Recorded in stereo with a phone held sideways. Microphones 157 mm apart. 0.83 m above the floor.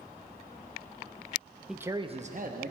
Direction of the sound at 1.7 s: Centre (ahead or behind).